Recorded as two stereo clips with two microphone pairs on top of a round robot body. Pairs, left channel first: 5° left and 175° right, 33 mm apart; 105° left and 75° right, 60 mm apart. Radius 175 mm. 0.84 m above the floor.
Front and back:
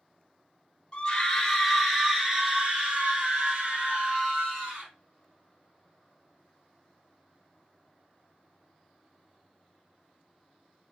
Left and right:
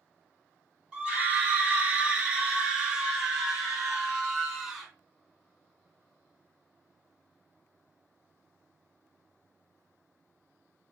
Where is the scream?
35° right, 1.0 m; by 4.9 s 150° right, 2 m.